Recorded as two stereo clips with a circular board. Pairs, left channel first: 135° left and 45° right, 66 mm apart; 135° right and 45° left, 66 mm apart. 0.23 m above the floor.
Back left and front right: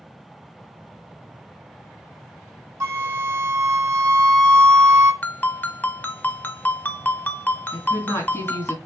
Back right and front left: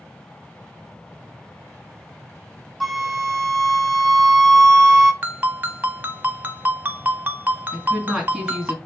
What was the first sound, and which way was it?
A flute, 50° right.